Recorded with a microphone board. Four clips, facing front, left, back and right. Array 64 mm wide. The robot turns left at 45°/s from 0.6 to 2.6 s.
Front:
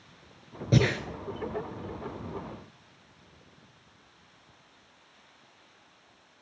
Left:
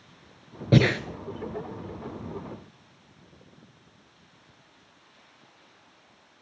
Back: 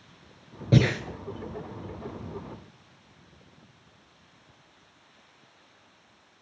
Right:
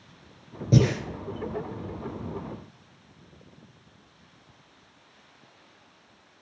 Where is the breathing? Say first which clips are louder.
Left 2 dB, back 2 dB; 95° left, 0.6 m; by 1.0 s 85° left, 0.6 m.